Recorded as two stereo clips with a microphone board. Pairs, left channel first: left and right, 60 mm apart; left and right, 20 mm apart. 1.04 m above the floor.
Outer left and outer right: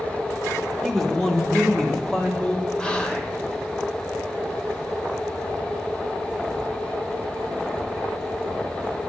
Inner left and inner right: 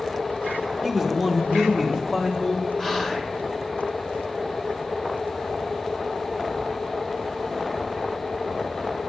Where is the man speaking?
Centre (ahead or behind), 0.8 m; by 2.7 s 10° left (ahead or behind), 1.7 m.